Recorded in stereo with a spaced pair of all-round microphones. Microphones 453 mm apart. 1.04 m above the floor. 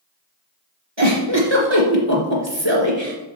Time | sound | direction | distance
1.0 | a giggle | 65° right (ahead or behind) | 2.5 m